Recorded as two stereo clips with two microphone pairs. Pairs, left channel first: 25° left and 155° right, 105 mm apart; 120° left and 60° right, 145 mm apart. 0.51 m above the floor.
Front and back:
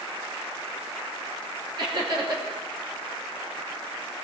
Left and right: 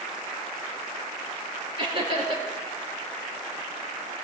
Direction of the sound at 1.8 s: 115° right.